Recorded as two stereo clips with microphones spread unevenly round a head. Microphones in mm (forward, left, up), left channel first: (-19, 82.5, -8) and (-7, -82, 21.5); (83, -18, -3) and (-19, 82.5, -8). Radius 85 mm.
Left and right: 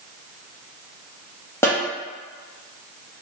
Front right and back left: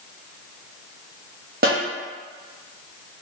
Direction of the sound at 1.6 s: 165° left.